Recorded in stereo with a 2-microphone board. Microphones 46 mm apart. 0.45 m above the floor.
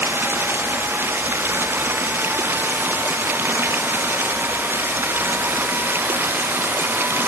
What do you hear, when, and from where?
0.0 s running water: 55° right (ahead or behind)